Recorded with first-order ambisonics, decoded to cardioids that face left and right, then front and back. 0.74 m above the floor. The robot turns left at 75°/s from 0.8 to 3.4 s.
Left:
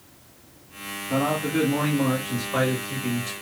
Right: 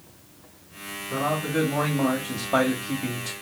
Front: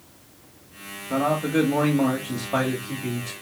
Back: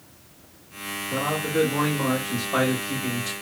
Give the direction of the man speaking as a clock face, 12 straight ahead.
11 o'clock.